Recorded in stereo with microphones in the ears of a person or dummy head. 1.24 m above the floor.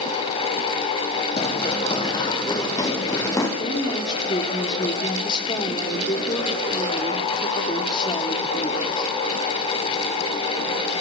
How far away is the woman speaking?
About 2.5 m.